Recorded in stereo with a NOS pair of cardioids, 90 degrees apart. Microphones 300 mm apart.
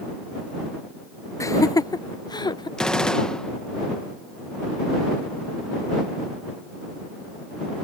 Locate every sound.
1.4 s laughter: 10° left; by 2.7 s 15° left
2.8 s a gunshot: 5° left